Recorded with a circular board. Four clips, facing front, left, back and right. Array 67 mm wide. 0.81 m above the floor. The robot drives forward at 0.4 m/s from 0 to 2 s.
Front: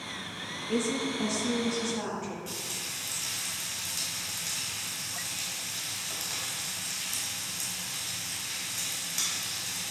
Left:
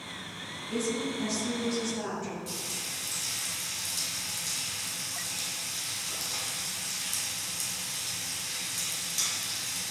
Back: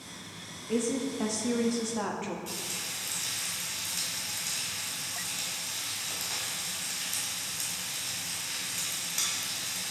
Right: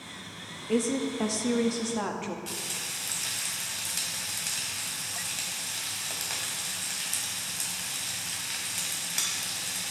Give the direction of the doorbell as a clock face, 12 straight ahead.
I don't hear a doorbell.